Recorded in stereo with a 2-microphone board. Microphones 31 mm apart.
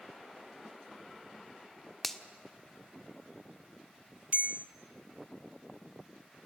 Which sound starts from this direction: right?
A bell, at 4.3 s.